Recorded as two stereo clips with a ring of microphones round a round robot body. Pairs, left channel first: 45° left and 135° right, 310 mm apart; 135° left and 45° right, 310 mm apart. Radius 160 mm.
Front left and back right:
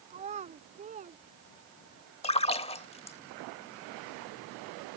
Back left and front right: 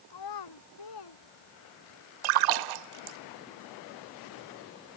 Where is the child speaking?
155° left.